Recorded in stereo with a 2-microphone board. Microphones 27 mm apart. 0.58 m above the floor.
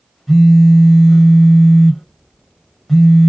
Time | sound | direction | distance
0.3 | a phone buzzing | 5° left (ahead or behind) | 0.9 m